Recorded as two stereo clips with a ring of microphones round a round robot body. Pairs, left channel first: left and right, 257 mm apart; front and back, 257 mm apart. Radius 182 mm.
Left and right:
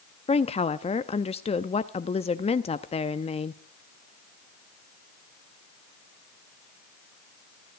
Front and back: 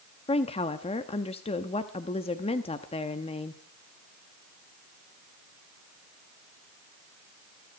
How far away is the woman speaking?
About 0.6 m.